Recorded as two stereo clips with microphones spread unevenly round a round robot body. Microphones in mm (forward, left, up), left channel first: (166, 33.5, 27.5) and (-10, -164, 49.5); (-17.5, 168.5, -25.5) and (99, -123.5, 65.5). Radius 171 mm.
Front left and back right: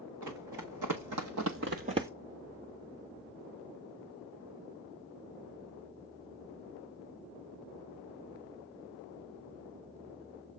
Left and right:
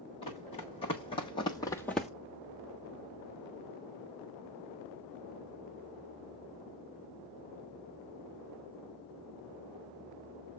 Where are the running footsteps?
170° right, 2.0 m; by 2.1 s 80° right, 0.5 m.